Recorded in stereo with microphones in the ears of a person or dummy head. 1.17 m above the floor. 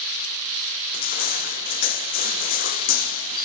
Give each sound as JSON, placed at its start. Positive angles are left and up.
{"t": 0.9, "sound": "crushing", "side_deg": 50}